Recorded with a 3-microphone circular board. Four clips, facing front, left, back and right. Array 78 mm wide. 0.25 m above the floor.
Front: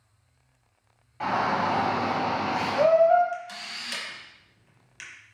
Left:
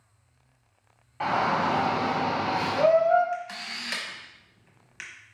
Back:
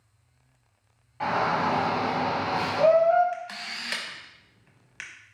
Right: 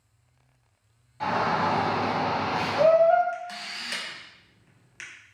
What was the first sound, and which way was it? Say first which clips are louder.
A shout: even, even; 90° left.